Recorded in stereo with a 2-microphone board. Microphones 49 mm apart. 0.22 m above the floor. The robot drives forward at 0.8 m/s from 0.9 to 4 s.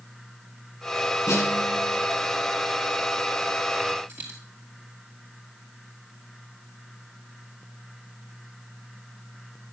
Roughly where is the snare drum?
Left.